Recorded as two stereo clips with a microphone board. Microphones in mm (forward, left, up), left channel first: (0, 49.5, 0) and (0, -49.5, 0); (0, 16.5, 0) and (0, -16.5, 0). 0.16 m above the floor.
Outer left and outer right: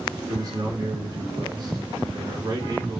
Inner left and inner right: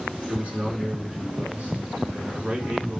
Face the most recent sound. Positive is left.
turn(degrees=-40)  # may be behind; listen again after turning